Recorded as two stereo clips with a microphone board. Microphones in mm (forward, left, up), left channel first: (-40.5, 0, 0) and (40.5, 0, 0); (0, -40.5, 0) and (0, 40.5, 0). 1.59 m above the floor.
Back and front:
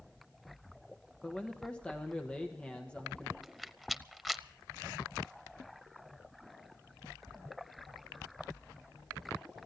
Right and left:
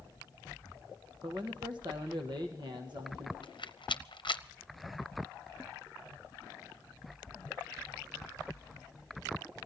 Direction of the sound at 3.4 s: 90° right.